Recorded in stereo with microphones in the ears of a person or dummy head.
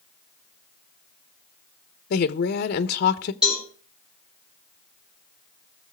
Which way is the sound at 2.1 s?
50° left (ahead or behind).